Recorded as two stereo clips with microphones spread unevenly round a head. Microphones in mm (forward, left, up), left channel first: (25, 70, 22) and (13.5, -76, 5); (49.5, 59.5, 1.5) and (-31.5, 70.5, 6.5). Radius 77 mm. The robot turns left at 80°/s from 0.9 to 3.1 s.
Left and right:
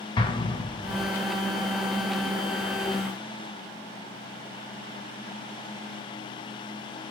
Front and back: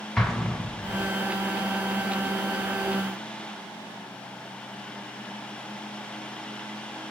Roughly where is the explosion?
Left.